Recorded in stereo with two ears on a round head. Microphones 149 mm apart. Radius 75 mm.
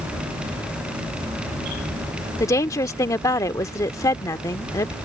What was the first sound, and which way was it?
A woman speaking, 20° left (ahead or behind).